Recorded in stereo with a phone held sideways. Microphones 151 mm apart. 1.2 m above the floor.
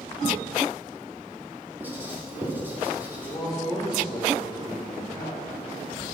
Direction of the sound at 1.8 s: 15° right (ahead or behind).